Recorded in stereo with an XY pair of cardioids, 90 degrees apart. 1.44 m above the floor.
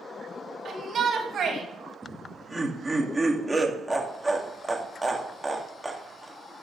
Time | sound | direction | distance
0.7 | a shout | 55° right | 3.5 m
2.0 | laughter | 10° right | 2.5 m